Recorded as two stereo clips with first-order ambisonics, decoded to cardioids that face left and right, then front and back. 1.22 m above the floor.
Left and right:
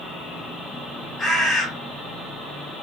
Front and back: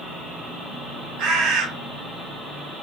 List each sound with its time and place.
1.2 s a bird: 160° left, 2.5 m